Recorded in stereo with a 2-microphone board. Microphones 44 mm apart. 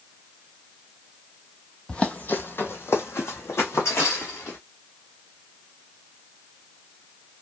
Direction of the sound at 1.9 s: 25° left (ahead or behind).